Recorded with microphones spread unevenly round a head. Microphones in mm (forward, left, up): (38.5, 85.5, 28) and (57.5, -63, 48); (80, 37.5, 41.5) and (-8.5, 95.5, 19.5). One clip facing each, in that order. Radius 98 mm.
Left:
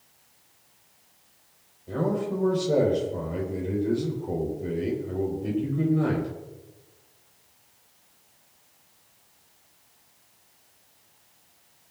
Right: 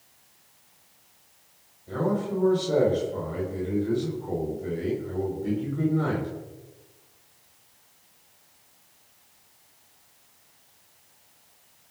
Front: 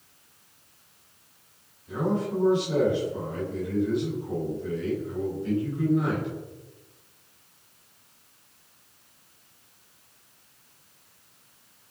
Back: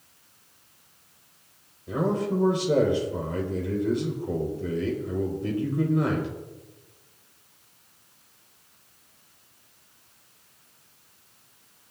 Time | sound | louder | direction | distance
1.9 | a man speaking | even, back 2 dB | 170° left | 4 m